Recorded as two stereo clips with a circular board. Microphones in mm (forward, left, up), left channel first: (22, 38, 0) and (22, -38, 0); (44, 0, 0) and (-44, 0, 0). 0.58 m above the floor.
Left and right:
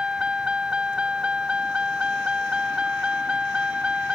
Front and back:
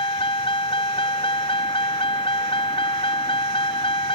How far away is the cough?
I don't hear a cough.